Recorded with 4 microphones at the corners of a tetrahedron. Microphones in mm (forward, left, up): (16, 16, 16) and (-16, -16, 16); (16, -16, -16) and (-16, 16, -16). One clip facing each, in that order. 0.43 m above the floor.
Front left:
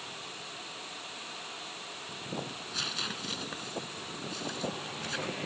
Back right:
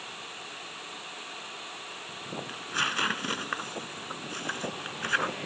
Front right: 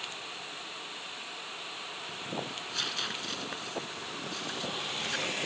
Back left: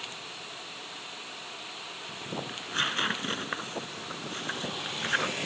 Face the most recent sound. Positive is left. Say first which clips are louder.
# back right 8 dB, back left 5 dB
turn(degrees=-175)